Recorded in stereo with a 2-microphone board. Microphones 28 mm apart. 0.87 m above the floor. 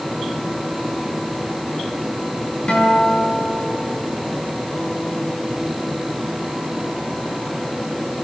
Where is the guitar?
50° left (ahead or behind), 6.5 m.